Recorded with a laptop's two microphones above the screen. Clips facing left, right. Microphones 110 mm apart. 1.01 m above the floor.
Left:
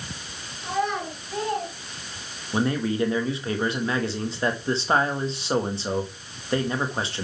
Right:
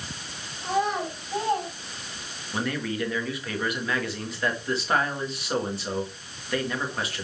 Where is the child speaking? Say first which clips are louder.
Right 1 dB; 20° right (ahead or behind), 2.5 m.